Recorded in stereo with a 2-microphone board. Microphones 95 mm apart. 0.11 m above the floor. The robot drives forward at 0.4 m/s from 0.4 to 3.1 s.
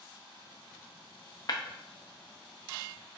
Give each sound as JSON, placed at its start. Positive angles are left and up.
{"t": 1.5, "sound": "breaking glass", "side_deg": 45, "distance_m": 1.0}